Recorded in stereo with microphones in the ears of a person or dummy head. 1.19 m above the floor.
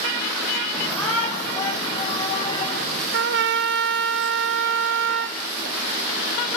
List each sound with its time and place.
0.7 s a shout: 10° left (ahead or behind), 4 m; by 3.0 s 35° left (ahead or behind), 4.5 m
3.1 s a trumpet: 65° right (ahead or behind), 2.5 m